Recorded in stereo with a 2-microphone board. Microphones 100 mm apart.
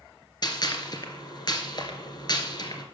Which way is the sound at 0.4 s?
45° left (ahead or behind).